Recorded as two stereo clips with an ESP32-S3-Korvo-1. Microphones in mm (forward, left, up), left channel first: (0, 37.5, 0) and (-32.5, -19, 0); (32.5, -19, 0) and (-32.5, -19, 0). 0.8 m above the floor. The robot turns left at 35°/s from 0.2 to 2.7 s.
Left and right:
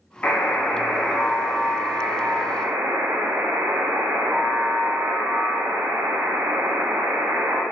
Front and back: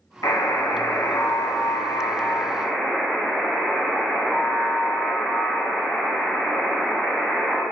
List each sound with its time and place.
0.2 s a buzzer: straight ahead, 1.0 m; by 7.6 s 85° right, 1.0 m